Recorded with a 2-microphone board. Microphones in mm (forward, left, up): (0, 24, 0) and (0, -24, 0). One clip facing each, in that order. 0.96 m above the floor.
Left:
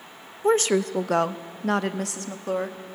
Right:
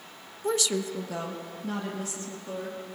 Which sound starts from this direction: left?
A woman speaking, at 0.4 s.